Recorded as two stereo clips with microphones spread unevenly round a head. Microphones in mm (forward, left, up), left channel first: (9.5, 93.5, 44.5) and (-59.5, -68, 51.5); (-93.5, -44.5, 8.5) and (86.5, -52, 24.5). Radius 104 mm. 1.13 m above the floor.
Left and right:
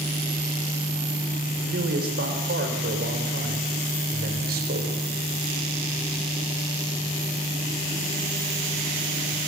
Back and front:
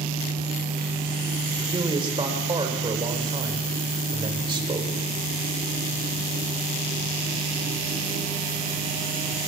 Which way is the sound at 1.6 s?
70° right.